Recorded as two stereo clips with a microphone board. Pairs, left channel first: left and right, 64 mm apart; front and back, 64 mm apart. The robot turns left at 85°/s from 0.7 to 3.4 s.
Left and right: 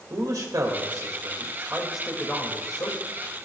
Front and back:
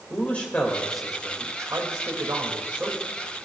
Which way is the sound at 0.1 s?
70° right.